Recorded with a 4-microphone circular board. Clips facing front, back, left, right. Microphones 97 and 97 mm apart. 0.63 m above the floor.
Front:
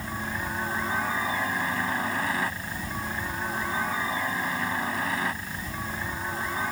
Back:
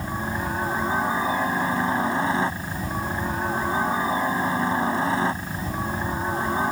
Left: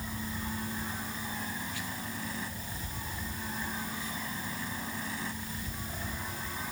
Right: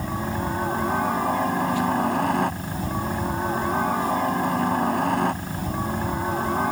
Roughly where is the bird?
I don't hear a bird.